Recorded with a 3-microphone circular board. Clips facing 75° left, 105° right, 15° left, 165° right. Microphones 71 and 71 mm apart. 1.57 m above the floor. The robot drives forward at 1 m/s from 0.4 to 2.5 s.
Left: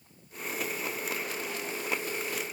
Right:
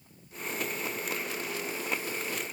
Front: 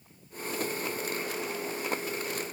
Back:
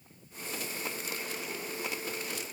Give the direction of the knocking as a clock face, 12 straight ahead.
I don't hear knocking.